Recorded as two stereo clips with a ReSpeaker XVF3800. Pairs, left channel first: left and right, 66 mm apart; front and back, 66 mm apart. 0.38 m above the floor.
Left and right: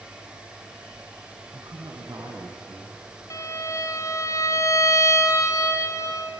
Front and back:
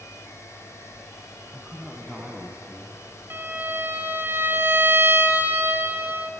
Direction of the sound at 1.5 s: 100° right.